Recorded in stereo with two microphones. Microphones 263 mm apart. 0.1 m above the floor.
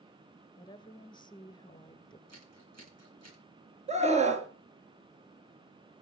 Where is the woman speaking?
15° left (ahead or behind), 1.2 m.